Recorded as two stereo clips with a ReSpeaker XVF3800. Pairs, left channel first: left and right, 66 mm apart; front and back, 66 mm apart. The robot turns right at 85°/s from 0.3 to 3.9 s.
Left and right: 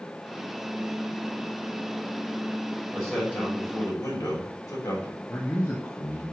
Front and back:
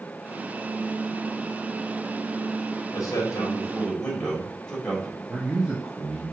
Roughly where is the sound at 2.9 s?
Ahead.